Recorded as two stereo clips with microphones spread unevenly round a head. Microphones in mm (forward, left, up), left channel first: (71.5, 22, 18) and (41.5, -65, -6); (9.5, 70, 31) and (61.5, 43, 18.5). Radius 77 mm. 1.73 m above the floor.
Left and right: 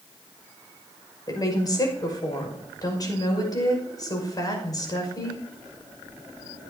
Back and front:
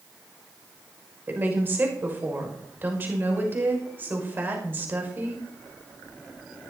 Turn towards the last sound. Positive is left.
turn(degrees=25)